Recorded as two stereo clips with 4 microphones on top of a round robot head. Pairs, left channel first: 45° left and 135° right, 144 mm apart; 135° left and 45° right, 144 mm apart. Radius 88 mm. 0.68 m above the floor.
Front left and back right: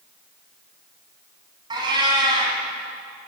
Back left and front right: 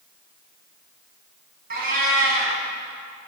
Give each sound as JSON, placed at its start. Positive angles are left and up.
{"t": 1.7, "sound": "a cat meowing", "azimuth_deg": -75, "distance_m": 2.5}